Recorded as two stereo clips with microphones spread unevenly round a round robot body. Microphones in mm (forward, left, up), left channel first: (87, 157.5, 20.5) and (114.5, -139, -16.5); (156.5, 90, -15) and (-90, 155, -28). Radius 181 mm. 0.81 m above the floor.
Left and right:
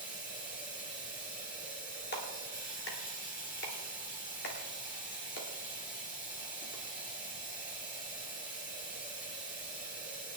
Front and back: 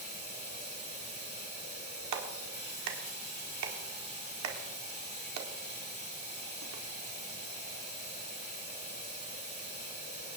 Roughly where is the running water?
Ahead left.